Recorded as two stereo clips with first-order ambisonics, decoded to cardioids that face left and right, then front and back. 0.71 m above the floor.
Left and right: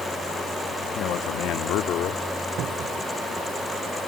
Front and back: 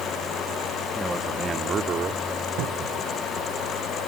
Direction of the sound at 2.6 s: 145° right.